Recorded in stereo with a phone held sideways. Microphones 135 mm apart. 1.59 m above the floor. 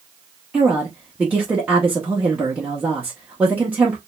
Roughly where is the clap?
I don't hear a clap.